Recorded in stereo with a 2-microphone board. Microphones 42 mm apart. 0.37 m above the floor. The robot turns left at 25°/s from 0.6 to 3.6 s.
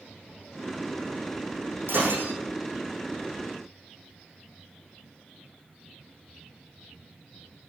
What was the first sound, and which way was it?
Breaking glass, 70° right (ahead or behind).